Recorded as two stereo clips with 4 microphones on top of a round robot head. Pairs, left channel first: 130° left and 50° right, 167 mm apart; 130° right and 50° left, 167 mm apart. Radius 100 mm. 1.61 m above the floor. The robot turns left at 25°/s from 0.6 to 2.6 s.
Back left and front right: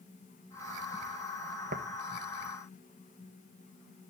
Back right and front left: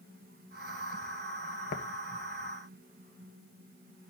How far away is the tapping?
About 0.8 m.